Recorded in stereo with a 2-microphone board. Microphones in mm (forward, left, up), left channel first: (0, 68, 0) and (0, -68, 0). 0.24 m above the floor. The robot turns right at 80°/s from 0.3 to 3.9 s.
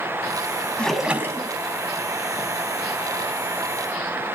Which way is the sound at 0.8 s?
165° left.